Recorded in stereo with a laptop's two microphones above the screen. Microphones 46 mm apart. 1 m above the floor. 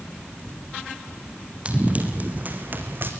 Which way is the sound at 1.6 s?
25° right (ahead or behind).